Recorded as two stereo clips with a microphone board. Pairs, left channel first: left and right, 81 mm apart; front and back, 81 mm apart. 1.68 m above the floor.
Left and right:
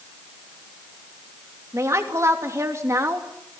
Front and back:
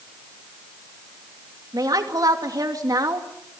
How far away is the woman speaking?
About 3 m.